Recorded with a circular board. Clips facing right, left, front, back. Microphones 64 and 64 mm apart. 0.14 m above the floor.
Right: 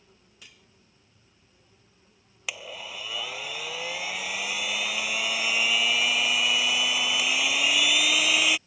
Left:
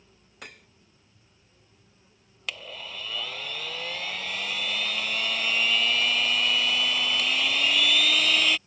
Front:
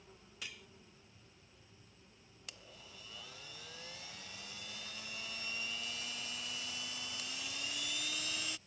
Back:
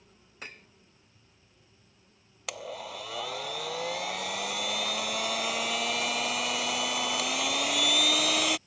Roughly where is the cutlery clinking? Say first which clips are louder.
Left 10 dB, back 5 dB; behind left.